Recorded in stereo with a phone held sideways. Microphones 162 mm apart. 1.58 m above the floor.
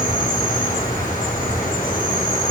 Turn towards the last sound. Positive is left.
turn(degrees=60)  # may be behind; listen again after turning